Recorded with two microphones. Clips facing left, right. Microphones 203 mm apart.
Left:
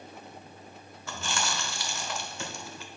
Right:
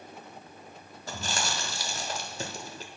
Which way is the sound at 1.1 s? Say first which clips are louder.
Even; 35° right (ahead or behind).